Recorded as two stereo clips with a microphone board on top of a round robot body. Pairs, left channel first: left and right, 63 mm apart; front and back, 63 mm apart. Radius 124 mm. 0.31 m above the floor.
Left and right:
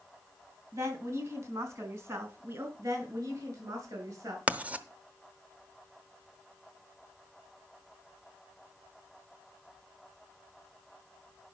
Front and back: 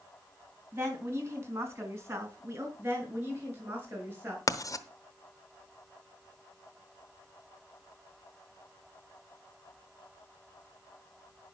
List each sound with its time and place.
0.7 s a woman speaking: 125° right, 4.5 m; by 2.7 s 135° right, 3.5 m
2.8 s a woman speaking: 120° right, 5.5 m
4.5 s writing: 25° right, 1.0 m